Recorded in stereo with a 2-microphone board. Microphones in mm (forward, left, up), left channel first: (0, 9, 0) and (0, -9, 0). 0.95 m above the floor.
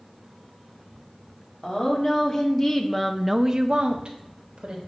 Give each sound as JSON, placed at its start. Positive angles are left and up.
{"t": 1.6, "sound": "a woman speaking", "side_deg": 35, "distance_m": 2.0}